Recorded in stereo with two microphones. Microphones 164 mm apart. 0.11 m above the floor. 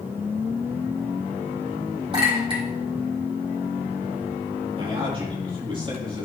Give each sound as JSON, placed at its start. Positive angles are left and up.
{"t": 2.1, "sound": "a clink", "side_deg": -35, "distance_m": 3.5}
{"t": 4.8, "sound": "a man speaking", "side_deg": -30, "distance_m": 3.5}